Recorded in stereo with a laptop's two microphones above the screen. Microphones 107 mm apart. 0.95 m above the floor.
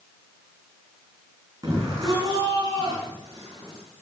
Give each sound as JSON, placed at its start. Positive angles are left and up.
{"t": 1.6, "sound": "a shout", "side_deg": -35, "distance_m": 9.0}